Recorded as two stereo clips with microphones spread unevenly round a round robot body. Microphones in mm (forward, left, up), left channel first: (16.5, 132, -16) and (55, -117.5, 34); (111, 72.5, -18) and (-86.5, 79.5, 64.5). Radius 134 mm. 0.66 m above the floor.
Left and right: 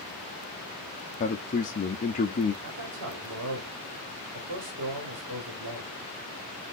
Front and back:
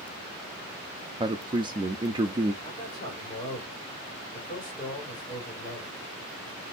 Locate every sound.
1.2 s a man speaking: 90° left, 0.6 m
2.6 s a man speaking: 60° right, 1.7 m